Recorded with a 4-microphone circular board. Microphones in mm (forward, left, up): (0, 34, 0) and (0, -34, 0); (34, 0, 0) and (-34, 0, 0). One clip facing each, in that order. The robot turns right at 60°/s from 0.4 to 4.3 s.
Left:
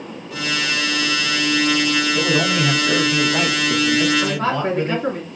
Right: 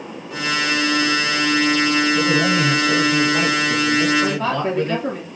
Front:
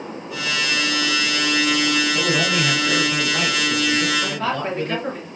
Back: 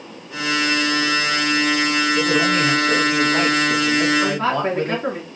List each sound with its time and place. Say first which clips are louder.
2.1 s a man speaking: right 1 dB, back 3 dB; 35° left, 3.5 m; by 5.0 s 165° left, 3.5 m
4.2 s a woman speaking: even, back 4 dB; 125° left, 4.5 m; by 5.3 s 130° left, 4.5 m